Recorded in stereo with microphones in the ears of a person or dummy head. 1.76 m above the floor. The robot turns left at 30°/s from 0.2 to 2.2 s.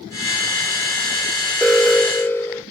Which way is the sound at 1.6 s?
5° right (ahead or behind).